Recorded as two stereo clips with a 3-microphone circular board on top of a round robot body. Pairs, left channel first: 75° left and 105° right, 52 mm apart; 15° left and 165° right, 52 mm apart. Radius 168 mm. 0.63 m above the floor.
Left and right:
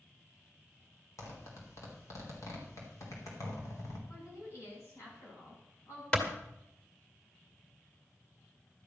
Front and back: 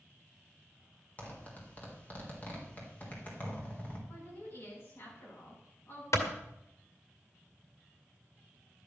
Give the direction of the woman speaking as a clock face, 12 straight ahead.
10 o'clock.